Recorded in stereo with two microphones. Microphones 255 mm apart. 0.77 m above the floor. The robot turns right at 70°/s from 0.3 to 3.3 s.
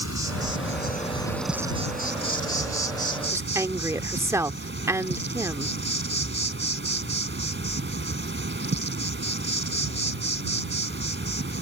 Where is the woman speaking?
10° right (ahead or behind).